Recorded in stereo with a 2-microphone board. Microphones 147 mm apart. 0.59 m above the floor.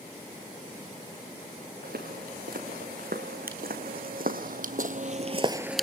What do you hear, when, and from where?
1.8 s footsteps: 80° right, 4 m; by 5.8 s 5° left (ahead or behind), 0.5 m